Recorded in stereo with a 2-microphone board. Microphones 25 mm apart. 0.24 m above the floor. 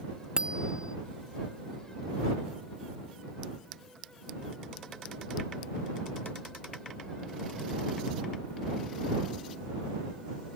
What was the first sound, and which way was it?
A bicycle bell, 25° right (ahead or behind).